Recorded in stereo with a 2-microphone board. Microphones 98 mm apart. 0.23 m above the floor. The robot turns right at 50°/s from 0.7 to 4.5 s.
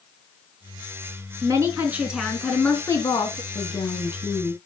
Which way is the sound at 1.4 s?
45° right.